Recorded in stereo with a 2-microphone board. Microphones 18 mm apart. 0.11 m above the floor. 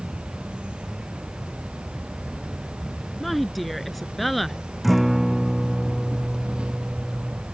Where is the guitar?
5° right (ahead or behind).